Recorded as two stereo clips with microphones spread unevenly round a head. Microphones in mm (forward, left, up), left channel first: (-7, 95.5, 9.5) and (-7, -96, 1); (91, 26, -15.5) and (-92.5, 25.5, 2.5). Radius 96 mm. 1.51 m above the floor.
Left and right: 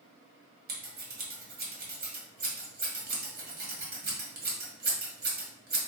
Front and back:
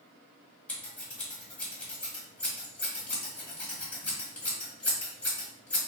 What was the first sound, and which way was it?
Scissors, 85° right.